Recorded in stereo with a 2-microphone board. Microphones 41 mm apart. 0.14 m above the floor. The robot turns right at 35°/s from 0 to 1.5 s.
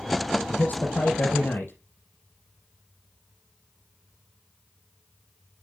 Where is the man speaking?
40° left, 3.5 m; by 1.7 s 80° left, 3.5 m.